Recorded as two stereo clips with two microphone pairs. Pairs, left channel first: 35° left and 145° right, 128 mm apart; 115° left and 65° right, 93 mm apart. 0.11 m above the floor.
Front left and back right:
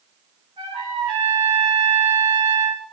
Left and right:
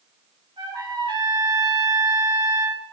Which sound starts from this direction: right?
A trumpet, at 0.6 s.